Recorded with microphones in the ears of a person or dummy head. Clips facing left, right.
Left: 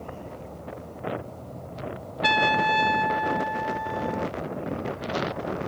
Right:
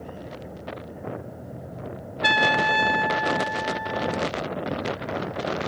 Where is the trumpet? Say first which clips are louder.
Even; 10° right (ahead or behind).